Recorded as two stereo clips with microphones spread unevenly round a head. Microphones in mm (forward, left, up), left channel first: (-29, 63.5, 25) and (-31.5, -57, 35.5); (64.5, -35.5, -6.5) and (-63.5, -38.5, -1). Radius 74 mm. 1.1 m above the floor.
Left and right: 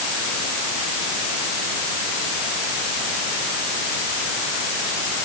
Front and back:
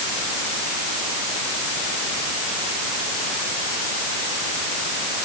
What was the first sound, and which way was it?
Only background noise.